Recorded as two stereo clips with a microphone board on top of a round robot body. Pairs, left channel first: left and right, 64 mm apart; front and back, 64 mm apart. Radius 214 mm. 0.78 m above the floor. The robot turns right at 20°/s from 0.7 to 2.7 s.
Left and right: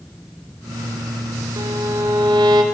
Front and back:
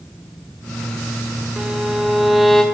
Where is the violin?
110° right, 3.5 m; by 2.6 s 90° right, 3.5 m.